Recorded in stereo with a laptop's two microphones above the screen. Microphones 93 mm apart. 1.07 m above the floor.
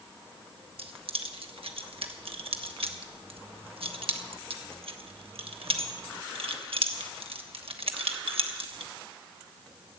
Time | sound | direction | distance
0.8 | keys jangling | 80° right | 1.1 m